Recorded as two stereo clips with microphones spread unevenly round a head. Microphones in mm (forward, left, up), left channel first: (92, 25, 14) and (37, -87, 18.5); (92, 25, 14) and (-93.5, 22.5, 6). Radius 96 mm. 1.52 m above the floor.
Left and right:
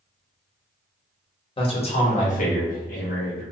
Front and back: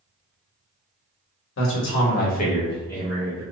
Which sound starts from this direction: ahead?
A man speaking, at 1.6 s.